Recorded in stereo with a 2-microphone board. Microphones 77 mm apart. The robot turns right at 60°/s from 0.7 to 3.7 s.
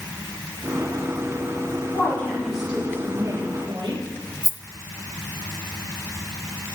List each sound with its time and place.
1.9 s a woman speaking: 145° left, 9.5 m; by 4.0 s 110° right, 9.5 m
4.4 s a rattle: 45° left (ahead or behind), 0.8 m